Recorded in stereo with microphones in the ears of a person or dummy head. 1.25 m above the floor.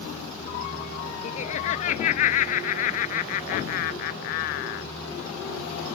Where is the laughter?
40° left (ahead or behind); by 4.9 s 50° left (ahead or behind).